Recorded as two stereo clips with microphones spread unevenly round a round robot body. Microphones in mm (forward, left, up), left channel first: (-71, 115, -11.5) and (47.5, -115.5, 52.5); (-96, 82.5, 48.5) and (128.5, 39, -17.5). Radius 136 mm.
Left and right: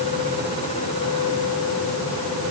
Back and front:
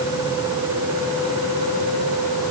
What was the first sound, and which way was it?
Only background noise.